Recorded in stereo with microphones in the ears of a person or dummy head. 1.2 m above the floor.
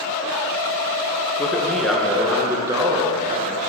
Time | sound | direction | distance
1.4 | a man speaking | 5° left (ahead or behind) | 1.5 m